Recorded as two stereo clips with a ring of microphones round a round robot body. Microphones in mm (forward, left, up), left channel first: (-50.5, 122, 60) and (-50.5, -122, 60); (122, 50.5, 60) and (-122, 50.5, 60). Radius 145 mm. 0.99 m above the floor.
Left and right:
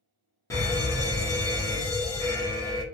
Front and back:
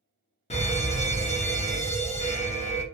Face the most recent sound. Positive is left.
turn(degrees=25)